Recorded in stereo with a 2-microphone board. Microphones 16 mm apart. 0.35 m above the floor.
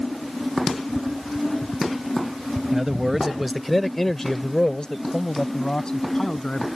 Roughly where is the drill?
I don't hear a drill.